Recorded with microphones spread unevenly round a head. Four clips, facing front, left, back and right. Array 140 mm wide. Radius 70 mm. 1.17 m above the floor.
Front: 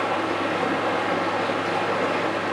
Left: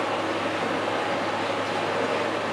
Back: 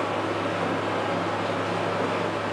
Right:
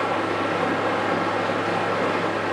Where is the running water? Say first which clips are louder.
Right 3 dB, front 2 dB; 35° right, 1.4 m.